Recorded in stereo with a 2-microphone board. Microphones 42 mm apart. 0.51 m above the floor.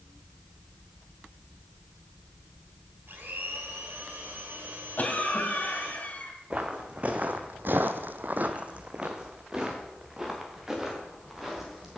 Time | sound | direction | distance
3.1 | a blender | 60° right (ahead or behind) | 2.5 m
5.0 | a cough | 35° left (ahead or behind) | 2.5 m
6.5 | footsteps | 25° right (ahead or behind) | 1.8 m